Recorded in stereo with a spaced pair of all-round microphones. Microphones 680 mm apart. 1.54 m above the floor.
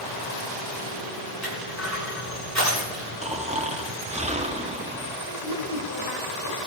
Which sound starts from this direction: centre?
Snoring, at 3.2 s.